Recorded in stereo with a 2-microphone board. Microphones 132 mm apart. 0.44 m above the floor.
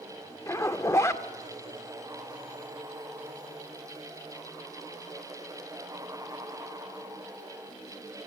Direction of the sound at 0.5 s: 20° left (ahead or behind).